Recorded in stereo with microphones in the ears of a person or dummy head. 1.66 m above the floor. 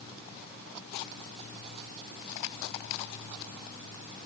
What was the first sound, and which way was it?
Only background noise.